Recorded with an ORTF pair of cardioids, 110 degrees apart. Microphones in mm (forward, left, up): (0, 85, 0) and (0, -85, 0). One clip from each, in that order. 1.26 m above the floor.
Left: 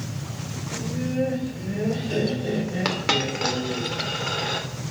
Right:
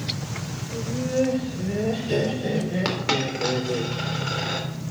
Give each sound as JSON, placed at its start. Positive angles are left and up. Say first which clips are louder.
{"t": 0.7, "sound": "laughter", "louder": "right 4 dB", "azimuth_deg": -25, "distance_m": 5.5}
{"t": 2.9, "sound": "a dropped coin", "louder": "left 3 dB", "azimuth_deg": 10, "distance_m": 2.0}